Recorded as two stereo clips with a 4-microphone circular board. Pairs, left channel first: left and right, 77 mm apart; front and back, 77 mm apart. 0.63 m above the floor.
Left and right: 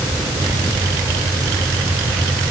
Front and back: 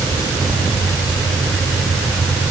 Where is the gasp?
No gasp in this recording.